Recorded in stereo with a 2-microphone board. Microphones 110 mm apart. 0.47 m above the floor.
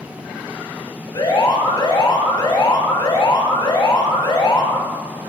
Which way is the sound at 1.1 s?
40° left (ahead or behind).